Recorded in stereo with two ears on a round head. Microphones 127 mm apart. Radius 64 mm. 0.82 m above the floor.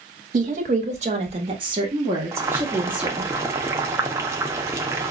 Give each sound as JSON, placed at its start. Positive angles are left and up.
{"t": 0.3, "sound": "a woman speaking", "side_deg": -60, "distance_m": 1.3}
{"t": 2.3, "sound": "boiling", "side_deg": -20, "distance_m": 0.6}